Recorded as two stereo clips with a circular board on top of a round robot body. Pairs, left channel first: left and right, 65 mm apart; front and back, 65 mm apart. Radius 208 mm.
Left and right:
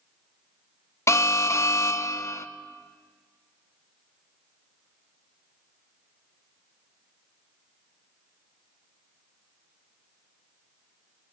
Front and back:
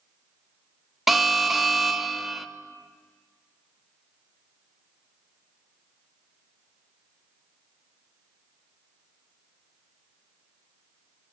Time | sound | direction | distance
1.1 | an alarm | 95° left | 0.8 m